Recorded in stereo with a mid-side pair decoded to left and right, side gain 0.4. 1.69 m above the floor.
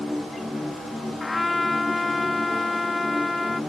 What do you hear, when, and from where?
0.0 s a machine running: 15° left
1.2 s a trumpet: 25° left